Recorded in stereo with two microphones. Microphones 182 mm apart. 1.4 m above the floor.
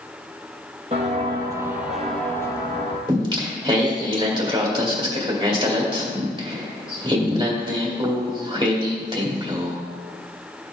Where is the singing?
25° right (ahead or behind), 2.5 m.